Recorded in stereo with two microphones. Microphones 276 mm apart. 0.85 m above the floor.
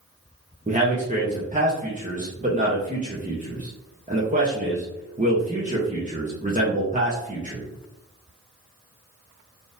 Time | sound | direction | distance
0.7 | a man speaking | 25° right (ahead or behind) | 0.7 m